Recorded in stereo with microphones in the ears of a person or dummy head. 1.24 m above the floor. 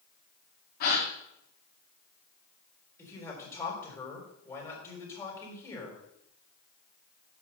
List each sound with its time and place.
0.8 s a gasp: 45° left (ahead or behind), 1.9 m
3.0 s a man speaking: 15° left (ahead or behind), 3.5 m